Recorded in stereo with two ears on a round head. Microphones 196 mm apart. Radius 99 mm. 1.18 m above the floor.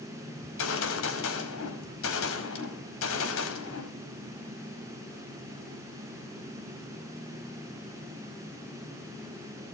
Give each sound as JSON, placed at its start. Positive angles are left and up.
{"t": 0.4, "sound": "a gunshot", "side_deg": 70, "distance_m": 4.5}